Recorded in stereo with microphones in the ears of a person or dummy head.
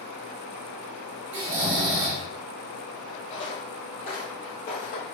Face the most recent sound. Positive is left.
turn(degrees=45)  # may be behind; listen again after turning